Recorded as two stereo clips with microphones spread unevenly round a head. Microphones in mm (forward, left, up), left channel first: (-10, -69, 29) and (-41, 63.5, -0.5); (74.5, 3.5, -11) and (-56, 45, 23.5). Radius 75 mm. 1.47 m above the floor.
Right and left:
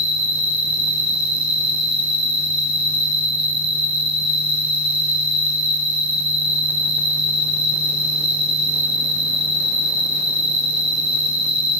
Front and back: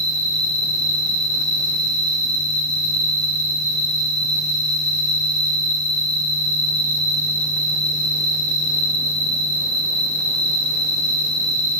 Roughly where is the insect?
Behind right.